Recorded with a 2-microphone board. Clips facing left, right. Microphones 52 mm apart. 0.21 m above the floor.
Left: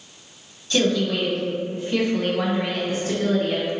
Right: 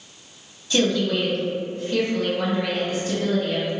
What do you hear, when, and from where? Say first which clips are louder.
0.7 s a woman speaking: even; 5° right (ahead or behind), 1.2 m; by 3.7 s 45° left (ahead or behind), 2.0 m